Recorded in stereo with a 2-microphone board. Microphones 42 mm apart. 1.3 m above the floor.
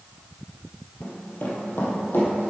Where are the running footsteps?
40° left (ahead or behind), 2 m; by 2.5 s 65° left (ahead or behind), 3.5 m.